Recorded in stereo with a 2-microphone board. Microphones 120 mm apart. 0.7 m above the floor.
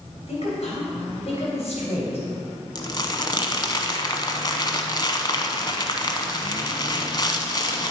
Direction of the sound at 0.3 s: 60° left (ahead or behind).